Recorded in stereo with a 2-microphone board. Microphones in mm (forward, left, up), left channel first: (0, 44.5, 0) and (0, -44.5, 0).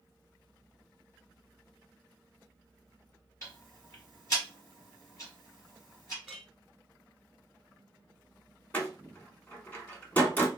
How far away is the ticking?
About 2.5 m.